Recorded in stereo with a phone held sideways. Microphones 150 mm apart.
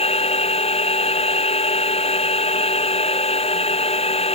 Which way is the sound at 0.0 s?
40° left (ahead or behind).